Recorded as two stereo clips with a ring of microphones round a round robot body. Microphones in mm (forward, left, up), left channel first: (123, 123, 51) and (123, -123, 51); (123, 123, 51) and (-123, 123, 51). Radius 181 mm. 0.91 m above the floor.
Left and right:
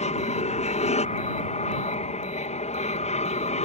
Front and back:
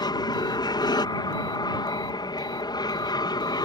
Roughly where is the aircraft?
Ahead left.